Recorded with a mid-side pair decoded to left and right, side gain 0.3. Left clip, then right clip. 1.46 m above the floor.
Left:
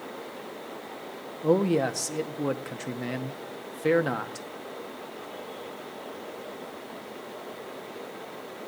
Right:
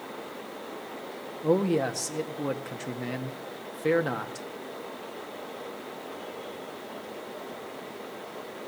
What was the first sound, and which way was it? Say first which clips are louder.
A man speaking: left 1 dB; 25° left.